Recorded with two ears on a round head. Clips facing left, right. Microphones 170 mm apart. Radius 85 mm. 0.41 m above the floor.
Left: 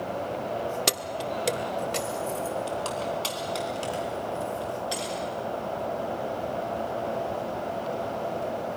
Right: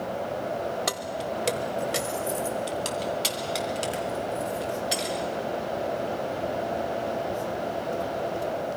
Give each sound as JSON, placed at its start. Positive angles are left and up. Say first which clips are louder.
{"t": 0.9, "sound": "keys jangling", "louder": "even", "side_deg": 30, "distance_m": 0.5}